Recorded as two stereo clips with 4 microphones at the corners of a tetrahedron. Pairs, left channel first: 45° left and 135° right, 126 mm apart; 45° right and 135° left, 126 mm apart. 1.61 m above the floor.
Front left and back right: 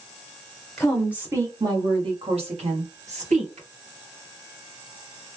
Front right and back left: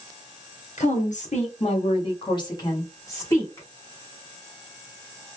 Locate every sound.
0.8 s a woman speaking: 40° right, 1.0 m; by 3.7 s 115° right, 2.5 m